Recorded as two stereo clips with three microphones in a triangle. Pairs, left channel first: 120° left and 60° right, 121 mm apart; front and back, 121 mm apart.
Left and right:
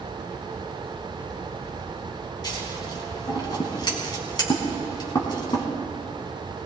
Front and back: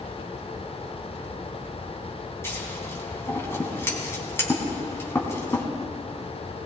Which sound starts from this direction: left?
Scissors, at 2.4 s.